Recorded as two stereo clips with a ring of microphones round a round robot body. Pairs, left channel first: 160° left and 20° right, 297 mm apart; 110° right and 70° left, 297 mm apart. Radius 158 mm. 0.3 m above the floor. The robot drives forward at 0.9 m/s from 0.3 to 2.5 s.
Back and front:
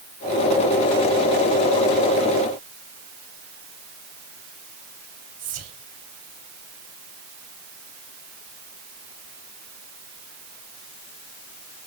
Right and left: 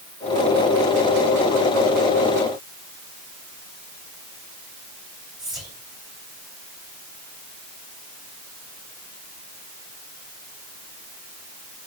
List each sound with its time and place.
5.4 s whispering: 20° right, 1.0 m